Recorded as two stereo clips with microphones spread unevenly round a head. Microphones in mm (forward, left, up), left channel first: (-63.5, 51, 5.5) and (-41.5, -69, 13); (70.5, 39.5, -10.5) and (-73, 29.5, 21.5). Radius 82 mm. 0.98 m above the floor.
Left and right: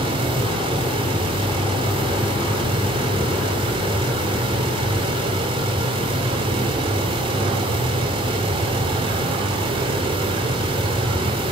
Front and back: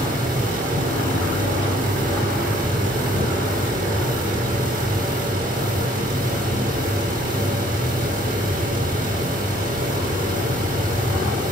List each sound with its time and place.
0.0 s a fan: 125° right, 3.5 m